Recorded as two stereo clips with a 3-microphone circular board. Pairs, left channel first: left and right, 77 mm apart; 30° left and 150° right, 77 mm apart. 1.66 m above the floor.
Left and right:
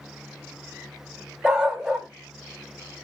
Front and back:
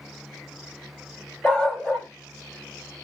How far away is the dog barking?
About 1.1 m.